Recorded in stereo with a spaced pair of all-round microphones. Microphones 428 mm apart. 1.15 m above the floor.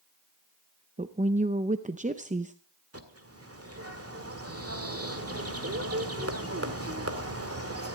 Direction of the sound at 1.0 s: 20° right (ahead or behind).